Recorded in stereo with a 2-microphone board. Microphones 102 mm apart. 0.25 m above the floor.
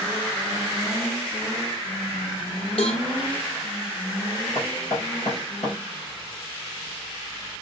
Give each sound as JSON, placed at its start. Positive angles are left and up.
{"t": 2.8, "sound": "a cowbell", "side_deg": 70, "distance_m": 1.9}
{"t": 4.5, "sound": "knocking", "side_deg": 75, "distance_m": 3.5}